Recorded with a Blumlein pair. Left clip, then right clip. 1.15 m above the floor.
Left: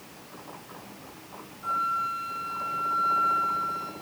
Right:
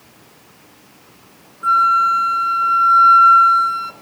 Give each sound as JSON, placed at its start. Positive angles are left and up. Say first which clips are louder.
{"t": 1.6, "sound": "a flute", "louder": "right 15 dB", "azimuth_deg": -35, "distance_m": 1.8}